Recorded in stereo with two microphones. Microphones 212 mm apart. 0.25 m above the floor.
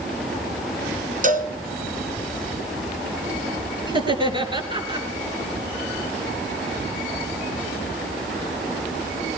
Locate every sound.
1.2 s a cowbell: 40° right (ahead or behind), 2 m
3.9 s laughter: 25° right (ahead or behind), 3.5 m